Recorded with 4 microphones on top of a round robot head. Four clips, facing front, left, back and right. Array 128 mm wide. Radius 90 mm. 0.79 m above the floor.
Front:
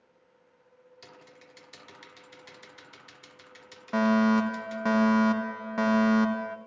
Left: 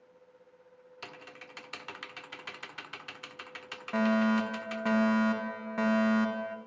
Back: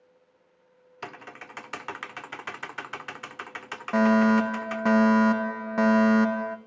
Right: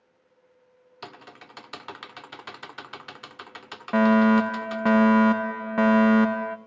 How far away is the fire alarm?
About 2.5 m.